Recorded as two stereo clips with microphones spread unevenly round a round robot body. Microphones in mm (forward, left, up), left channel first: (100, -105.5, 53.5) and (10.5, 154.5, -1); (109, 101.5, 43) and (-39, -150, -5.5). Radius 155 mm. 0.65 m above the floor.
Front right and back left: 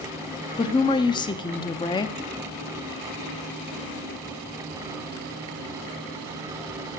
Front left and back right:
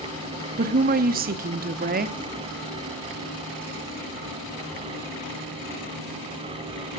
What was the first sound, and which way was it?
A woman speaking, 150° right.